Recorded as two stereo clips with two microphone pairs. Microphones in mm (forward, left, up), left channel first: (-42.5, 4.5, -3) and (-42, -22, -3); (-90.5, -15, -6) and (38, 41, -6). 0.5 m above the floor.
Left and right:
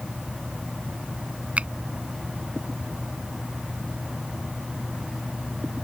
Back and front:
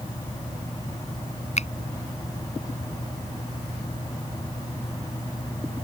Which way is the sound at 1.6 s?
125° right.